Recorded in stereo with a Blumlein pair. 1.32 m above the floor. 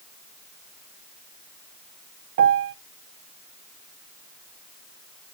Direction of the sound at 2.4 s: 55° right.